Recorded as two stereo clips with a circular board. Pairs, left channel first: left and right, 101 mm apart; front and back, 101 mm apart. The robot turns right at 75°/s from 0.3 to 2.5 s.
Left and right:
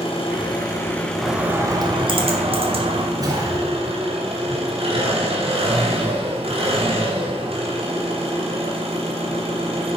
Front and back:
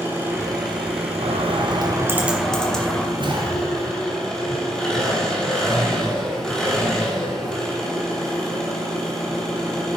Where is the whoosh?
140° right, 2.0 m.